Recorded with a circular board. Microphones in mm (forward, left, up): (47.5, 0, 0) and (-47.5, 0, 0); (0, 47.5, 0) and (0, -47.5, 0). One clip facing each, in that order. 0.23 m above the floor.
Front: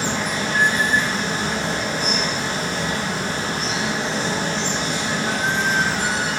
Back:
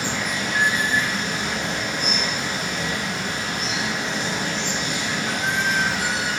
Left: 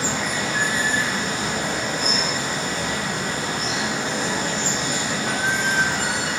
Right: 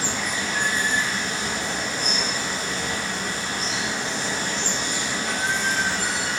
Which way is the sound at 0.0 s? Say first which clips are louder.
Front 3 dB, left 3 dB; 55° left.